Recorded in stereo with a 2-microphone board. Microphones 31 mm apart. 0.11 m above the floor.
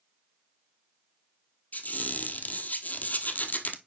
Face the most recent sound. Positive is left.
turn(degrees=55)  # may be behind; listen again after turning